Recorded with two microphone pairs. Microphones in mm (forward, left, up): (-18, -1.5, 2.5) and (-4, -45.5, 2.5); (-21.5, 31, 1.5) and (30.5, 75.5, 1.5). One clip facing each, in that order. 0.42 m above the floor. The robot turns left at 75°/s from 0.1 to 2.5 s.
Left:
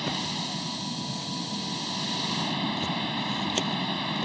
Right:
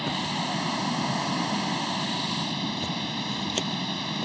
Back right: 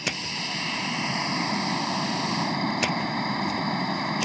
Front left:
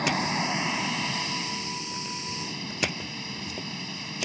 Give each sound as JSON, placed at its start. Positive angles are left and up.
{"t": 0.0, "sound": "running water", "azimuth_deg": 5}